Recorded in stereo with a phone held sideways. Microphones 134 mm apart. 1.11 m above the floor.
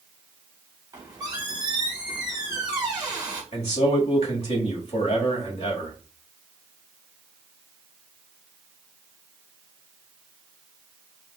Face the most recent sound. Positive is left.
turn(degrees=50)  # may be behind; listen again after turning